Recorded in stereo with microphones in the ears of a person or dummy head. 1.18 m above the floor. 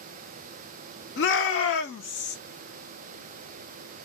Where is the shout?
50° left (ahead or behind), 0.8 m; by 2.4 s 65° left (ahead or behind), 1.5 m.